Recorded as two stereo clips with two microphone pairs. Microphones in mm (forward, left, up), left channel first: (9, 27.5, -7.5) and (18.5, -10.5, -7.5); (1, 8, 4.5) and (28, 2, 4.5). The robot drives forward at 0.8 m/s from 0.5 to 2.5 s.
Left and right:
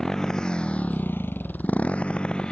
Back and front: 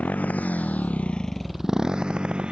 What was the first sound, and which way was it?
A motorcycle, straight behind.